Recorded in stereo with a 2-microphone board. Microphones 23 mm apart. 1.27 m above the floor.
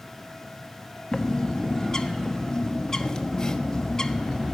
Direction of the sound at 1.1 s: 30° left (ahead or behind).